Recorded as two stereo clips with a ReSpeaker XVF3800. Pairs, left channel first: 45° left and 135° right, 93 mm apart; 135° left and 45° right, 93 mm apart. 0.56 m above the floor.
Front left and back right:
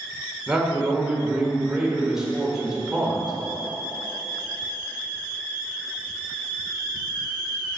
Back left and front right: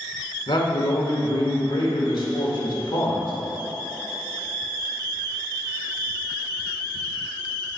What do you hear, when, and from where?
0.5 s a man speaking: 140° left, 1.6 m